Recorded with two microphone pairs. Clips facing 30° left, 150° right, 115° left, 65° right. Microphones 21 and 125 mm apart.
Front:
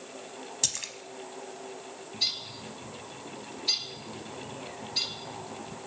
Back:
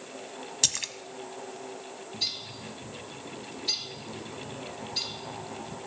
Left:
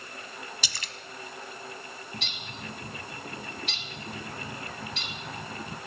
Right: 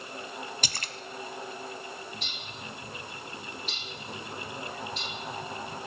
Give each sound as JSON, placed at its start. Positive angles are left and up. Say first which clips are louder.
{"t": 0.6, "sound": "a splash", "louder": "back 4 dB, right 3 dB", "azimuth_deg": -85, "distance_m": 0.7}
{"t": 2.1, "sound": "a bird", "louder": "front 2 dB, left 1 dB", "azimuth_deg": 110, "distance_m": 1.5}